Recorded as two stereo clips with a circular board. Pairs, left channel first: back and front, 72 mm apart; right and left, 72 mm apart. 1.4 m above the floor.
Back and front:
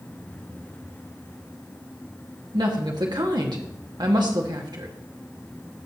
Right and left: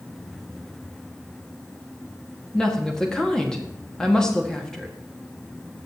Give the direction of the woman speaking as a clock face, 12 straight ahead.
12 o'clock.